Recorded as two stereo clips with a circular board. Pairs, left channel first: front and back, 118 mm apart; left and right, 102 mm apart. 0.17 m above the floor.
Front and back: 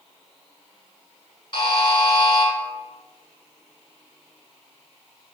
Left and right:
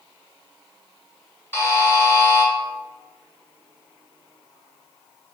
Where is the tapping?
I don't hear tapping.